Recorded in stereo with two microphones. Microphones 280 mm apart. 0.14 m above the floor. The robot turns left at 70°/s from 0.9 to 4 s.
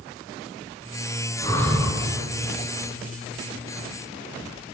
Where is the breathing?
25° left, 1.4 m; by 2.0 s 15° right, 1.4 m.